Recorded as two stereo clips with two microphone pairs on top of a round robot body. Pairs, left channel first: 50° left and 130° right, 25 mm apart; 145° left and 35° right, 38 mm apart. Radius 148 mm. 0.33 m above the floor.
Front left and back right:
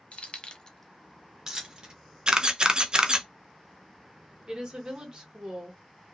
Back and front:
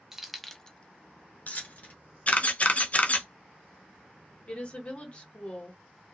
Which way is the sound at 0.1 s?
45° left.